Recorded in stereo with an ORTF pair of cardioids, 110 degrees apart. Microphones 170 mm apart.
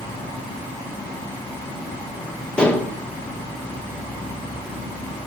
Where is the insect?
10° left, 1.3 m.